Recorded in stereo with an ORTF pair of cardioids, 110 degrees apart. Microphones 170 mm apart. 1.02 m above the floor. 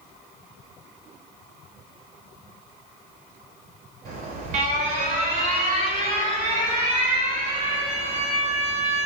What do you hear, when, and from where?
4.0 s an alarm: 65° right, 5 m